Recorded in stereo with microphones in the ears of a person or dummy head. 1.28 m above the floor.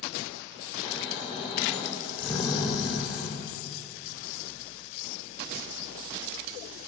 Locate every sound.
0.8 s snoring: 35° left (ahead or behind), 5 m